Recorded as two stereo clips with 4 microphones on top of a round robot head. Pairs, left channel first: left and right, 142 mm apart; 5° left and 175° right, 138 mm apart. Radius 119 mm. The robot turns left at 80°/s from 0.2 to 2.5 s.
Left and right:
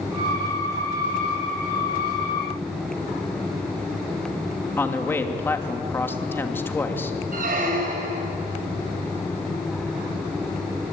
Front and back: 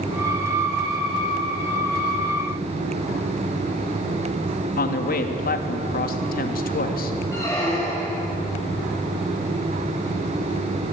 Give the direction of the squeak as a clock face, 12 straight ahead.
2 o'clock.